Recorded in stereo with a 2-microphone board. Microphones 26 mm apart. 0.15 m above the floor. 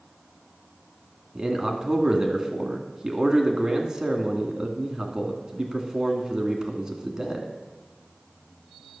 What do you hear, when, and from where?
1.4 s a man speaking: 25° right (ahead or behind), 1.4 m